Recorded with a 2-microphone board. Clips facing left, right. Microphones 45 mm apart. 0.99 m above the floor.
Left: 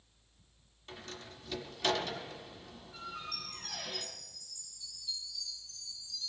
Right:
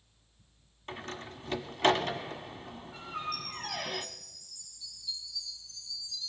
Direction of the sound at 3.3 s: 65° left (ahead or behind).